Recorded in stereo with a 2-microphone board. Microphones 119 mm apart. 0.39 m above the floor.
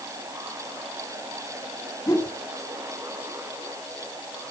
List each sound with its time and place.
2.1 s a whoosh: 25° left (ahead or behind), 1.0 m